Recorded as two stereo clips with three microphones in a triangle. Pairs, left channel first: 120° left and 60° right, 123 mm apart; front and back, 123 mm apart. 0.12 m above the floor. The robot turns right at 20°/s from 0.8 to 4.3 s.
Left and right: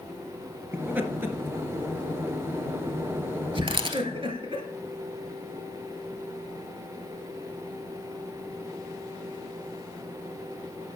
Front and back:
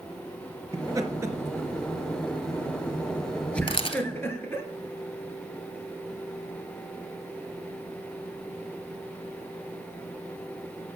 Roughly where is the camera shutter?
Ahead right.